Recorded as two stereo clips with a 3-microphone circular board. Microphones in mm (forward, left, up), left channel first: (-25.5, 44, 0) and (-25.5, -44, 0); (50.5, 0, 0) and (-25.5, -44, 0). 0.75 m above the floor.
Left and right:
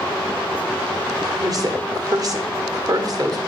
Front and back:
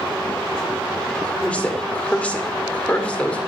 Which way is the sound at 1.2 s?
45° right.